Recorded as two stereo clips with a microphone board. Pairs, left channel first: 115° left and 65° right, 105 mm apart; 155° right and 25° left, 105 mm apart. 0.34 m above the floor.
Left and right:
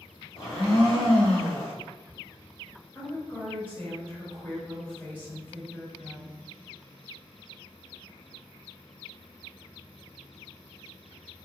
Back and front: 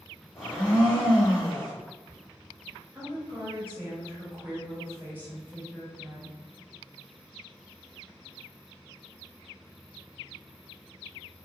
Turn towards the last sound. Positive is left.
turn(degrees=65)